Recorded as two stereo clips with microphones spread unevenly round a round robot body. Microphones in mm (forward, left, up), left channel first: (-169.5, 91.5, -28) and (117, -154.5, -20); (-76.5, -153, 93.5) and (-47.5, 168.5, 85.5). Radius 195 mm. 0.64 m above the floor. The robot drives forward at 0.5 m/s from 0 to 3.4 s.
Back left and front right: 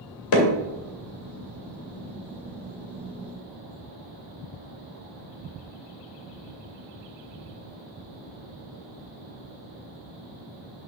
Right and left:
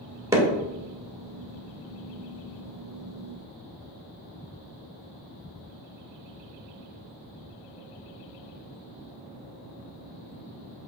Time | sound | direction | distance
0.3 | hammering | 165° left | 1.6 m